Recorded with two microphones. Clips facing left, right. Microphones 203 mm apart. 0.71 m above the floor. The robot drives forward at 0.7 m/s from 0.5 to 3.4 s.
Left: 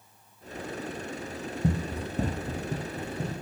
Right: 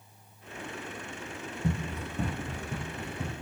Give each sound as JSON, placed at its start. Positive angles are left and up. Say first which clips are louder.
{"t": 1.6, "sound": "running footsteps", "louder": "left 3 dB", "side_deg": 35, "distance_m": 2.0}